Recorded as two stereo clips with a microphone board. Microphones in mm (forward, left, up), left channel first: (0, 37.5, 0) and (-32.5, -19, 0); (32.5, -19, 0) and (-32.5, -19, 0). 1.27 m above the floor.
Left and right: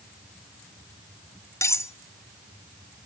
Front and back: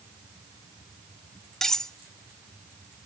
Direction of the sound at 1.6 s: 80° left.